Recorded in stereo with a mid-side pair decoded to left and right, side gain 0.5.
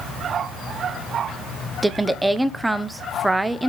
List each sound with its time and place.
1.8 s a woman speaking: 15° right, 1.1 m